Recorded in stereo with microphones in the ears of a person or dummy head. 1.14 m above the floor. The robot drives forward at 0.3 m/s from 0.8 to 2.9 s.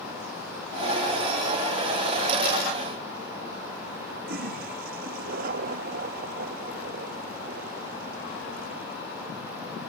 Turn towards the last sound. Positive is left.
turn(degrees=-60)  # may be behind; listen again after turning